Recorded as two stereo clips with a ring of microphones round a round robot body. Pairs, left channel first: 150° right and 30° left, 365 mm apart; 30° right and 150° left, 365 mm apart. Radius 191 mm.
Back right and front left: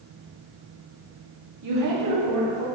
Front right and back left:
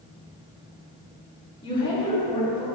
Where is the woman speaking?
45° left, 1.2 m.